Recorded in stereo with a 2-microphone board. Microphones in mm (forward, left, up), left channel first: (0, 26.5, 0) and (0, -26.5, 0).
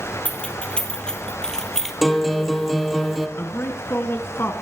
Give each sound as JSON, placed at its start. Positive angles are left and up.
{"t": 0.2, "sound": "keys jangling", "side_deg": 25, "distance_m": 3.0}
{"t": 2.0, "sound": "a guitar", "side_deg": 0, "distance_m": 2.0}
{"t": 3.4, "sound": "a man speaking", "side_deg": 45, "distance_m": 1.9}